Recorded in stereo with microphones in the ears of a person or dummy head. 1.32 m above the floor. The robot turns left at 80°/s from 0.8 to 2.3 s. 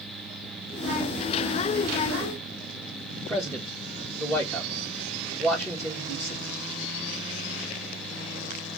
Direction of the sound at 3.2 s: 5° left (ahead or behind).